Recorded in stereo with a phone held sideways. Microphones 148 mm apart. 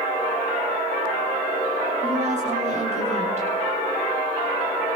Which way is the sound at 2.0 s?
50° right (ahead or behind).